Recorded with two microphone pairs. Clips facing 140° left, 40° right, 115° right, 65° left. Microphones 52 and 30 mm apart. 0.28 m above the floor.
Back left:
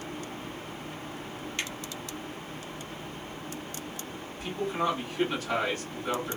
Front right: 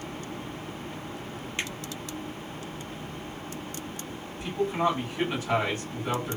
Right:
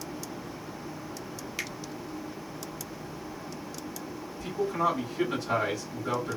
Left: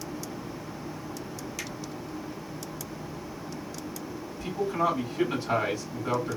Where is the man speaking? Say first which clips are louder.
Front right 4 dB, even; 15° left, 2 m.